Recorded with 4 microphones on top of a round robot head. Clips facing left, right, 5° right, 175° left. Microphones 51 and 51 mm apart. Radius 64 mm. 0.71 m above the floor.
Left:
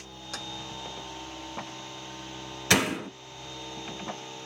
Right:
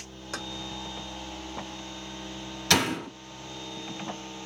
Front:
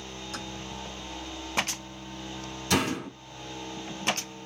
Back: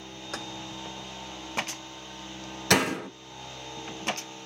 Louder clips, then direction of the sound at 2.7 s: Even, back 3 dB; 160° left.